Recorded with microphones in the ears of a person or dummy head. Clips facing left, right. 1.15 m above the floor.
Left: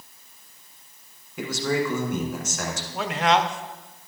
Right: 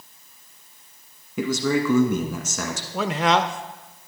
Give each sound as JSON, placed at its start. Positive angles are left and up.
{"t": 1.4, "sound": "a man speaking", "side_deg": -65, "distance_m": 1.3}
{"t": 2.9, "sound": "a man speaking", "side_deg": -70, "distance_m": 0.5}